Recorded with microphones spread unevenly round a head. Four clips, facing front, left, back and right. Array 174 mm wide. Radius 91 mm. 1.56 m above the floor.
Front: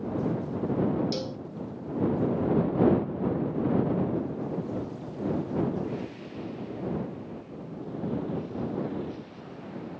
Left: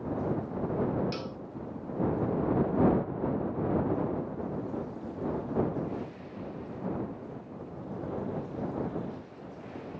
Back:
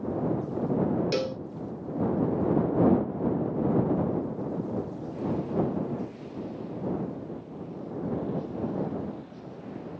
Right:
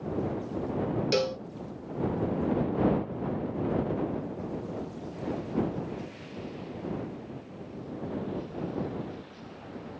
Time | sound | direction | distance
1.1 | a cowbell | 130° right | ?